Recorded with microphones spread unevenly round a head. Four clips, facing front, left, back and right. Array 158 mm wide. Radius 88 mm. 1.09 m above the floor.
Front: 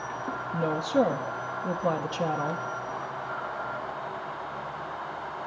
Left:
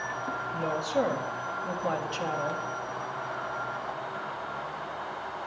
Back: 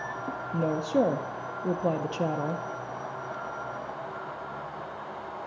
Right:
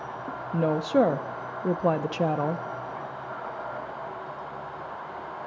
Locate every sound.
0.5 s a woman speaking: 100° right, 0.7 m